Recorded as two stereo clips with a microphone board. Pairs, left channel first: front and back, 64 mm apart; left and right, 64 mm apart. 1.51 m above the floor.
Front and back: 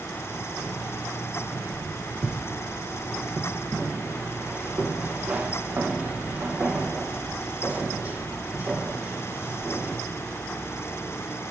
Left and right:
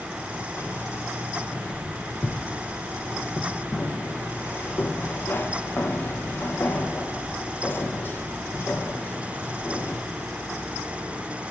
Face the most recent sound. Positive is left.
turn(degrees=130)